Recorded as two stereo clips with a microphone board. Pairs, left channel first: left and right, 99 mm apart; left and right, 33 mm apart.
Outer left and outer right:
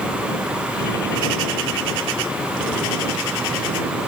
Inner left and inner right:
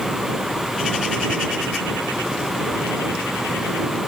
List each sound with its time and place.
Only background noise.